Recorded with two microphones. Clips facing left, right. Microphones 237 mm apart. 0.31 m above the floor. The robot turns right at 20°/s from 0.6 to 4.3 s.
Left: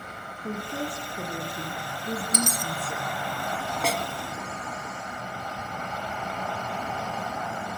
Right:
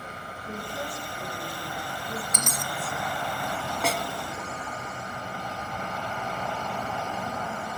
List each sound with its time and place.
0.4 s a woman speaking: 80° left, 8.5 m; by 3.1 s 130° left, 8.5 m
2.3 s a dropped coin: 35° left (ahead or behind), 1.0 m; by 2.7 s 40° left (ahead or behind), 1.0 m
3.8 s a snare drum: centre (ahead or behind), 1.4 m; by 4.1 s 5° left (ahead or behind), 1.4 m